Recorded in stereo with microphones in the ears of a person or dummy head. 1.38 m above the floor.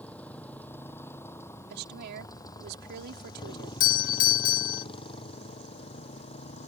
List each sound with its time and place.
0.0 s a motorcycle: 5° left (ahead or behind); by 6.7 s 35° left (ahead or behind)
1.7 s a woman speaking: 60° right (ahead or behind)
3.8 s a doorbell: 50° left (ahead or behind)